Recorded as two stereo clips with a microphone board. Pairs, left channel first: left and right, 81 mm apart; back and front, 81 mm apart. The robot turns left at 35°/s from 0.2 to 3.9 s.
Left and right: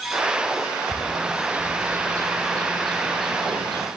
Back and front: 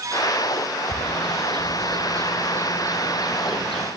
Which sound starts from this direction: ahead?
A bird, at 0.9 s.